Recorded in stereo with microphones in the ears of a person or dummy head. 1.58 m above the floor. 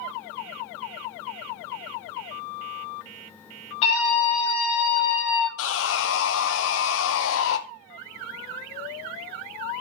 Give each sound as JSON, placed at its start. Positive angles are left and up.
{"t": 3.8, "sound": "a scream", "side_deg": 35, "distance_m": 2.5}
{"t": 5.6, "sound": "sawing", "side_deg": 70, "distance_m": 0.8}